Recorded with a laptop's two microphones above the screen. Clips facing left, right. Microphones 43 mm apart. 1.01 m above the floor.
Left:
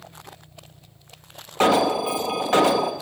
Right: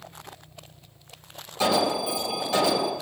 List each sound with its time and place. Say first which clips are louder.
1.6 s an alarm: left 5 dB; 50° left (ahead or behind), 0.8 m